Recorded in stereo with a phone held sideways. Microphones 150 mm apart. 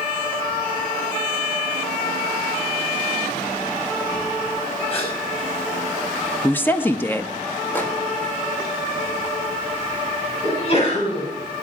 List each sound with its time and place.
4.9 s a gasp: 40° left (ahead or behind), 5 m
6.4 s a woman speaking: 15° left (ahead or behind), 0.8 m
7.8 s a microwave: 10° left (ahead or behind), 2 m
10.4 s a sneeze: 40° left (ahead or behind), 7.5 m